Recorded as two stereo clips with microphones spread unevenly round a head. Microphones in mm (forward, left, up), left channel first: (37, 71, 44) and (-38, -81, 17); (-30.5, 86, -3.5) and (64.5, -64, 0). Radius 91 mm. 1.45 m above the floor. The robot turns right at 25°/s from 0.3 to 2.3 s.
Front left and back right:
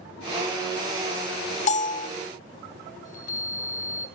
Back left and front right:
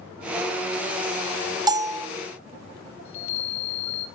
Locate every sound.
1.7 s a bell: 10° left, 1.3 m; by 2.1 s 20° left, 1.3 m
3.0 s a chime: 110° left, 2.5 m